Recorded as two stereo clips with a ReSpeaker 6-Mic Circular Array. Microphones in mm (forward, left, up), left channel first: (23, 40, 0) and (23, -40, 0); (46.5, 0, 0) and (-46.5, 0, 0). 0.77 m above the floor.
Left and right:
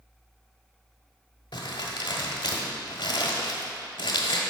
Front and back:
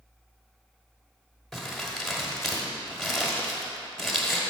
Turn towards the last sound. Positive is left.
turn(degrees=90)